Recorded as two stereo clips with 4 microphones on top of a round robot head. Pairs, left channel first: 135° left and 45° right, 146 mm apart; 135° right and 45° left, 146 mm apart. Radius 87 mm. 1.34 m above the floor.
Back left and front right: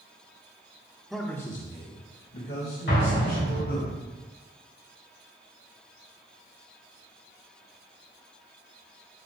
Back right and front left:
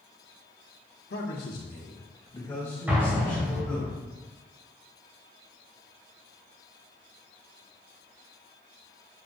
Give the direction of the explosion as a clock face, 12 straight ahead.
8 o'clock.